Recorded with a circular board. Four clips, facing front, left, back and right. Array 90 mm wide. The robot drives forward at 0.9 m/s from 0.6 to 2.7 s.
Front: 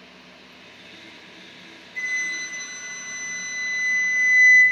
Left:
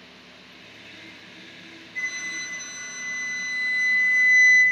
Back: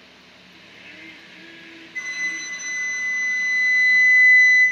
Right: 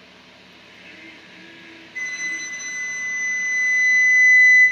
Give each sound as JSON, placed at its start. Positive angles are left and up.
{"t": 1.9, "sound": "a flute", "azimuth_deg": -160, "distance_m": 1.1}